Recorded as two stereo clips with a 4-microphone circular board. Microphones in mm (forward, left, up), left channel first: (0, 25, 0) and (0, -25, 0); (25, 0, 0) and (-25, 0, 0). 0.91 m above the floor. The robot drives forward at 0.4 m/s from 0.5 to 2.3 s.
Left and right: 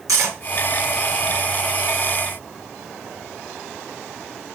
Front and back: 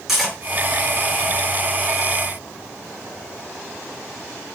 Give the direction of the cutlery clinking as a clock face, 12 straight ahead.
3 o'clock.